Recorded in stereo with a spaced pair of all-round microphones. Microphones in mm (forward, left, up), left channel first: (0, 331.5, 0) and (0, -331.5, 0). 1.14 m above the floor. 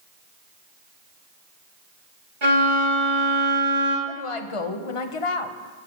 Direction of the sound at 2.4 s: 75° right (ahead or behind).